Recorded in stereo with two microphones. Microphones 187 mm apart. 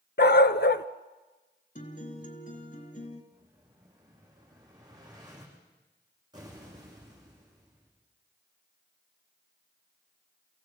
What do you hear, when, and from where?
0.2 s a dog barking: 70° left (ahead or behind), 0.7 m
1.8 s a guitar: 45° left (ahead or behind), 2.5 m
3.3 s an explosion: 20° right (ahead or behind), 9.5 m